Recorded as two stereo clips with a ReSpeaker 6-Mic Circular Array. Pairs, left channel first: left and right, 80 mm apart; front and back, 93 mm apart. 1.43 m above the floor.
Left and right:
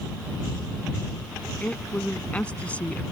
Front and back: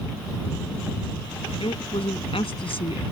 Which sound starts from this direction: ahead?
A woman speaking, at 1.6 s.